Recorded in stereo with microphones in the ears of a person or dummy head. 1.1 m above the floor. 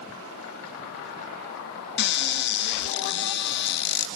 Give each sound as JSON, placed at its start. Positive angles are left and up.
{"t": 2.0, "sound": "a cupboard door", "side_deg": 60, "distance_m": 0.7}